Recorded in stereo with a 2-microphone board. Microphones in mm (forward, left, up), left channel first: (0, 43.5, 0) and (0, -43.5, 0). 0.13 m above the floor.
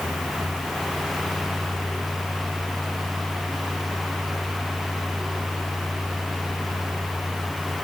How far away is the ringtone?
No ringtone in this recording.